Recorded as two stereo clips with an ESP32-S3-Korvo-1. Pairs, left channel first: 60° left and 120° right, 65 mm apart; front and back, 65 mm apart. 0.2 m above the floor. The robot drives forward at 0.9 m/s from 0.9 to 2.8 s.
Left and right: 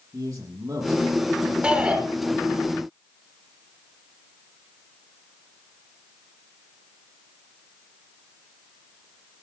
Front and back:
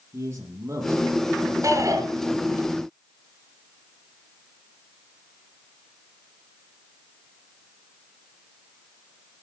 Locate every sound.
0.1 s a man speaking: 135° right, 8 m; by 1.5 s 140° right, 8.5 m
1.6 s a shout: 175° left, 3 m